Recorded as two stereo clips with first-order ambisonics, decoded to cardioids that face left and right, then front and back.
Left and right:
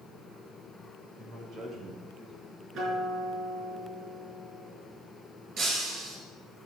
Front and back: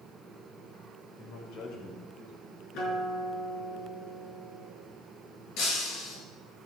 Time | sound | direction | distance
1.2 | a man speaking | 30° right | 3 m
2.7 | a guitar | 35° right | 5 m
5.6 | breaking glass | 35° right | 4.5 m